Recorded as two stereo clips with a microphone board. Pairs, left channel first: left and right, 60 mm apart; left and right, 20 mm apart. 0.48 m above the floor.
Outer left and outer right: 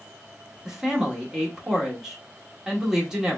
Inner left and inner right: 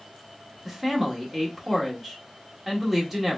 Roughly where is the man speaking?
Centre.